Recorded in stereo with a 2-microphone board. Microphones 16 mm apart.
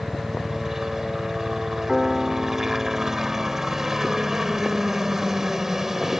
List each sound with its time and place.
0.0 s a helicopter: 20° right (ahead or behind)
1.9 s a piano: 15° right (ahead or behind)